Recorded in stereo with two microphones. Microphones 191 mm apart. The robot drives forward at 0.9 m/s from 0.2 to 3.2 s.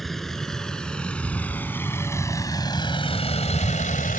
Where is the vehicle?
Centre (ahead or behind); by 4.2 s 45° left (ahead or behind).